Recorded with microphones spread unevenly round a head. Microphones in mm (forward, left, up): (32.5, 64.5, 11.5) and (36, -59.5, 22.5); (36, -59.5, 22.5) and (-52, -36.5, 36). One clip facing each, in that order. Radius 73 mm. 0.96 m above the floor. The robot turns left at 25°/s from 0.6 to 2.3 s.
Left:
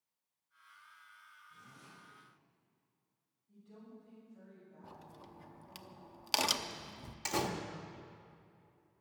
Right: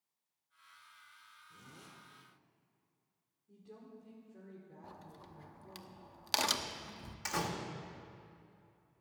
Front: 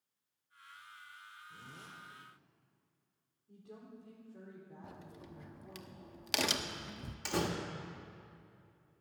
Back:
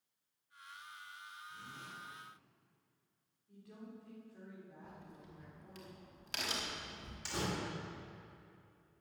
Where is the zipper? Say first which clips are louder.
Right 3 dB, back 2 dB; 60° right, 5.5 m; by 1.9 s 70° right, 5.5 m.